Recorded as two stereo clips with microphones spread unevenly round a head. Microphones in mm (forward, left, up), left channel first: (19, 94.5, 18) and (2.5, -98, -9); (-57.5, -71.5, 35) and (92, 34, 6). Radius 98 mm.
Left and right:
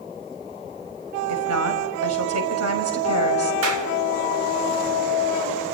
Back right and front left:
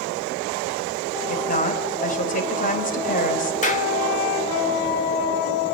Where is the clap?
95° right, 3 m.